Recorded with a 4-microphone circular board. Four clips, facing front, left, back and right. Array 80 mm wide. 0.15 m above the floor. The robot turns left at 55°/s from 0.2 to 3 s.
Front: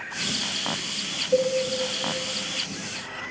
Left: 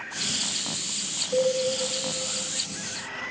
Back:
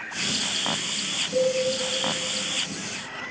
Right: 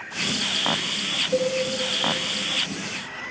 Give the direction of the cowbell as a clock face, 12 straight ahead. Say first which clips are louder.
Even, front 1 dB; 1 o'clock.